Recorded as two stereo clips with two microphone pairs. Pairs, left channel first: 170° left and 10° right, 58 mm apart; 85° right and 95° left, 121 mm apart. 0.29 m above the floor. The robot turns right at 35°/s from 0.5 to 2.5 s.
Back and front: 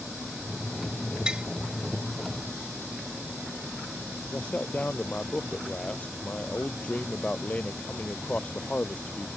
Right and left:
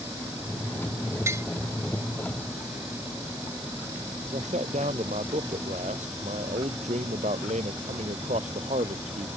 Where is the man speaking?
100° left.